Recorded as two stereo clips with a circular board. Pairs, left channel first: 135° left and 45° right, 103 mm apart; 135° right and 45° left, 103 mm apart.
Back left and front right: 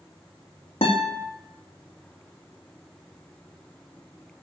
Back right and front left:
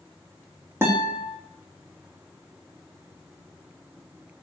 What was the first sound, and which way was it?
A guitar, 110° left.